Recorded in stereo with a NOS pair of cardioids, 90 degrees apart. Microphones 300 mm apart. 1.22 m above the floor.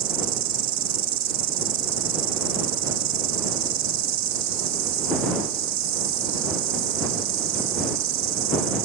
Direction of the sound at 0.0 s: 70° right.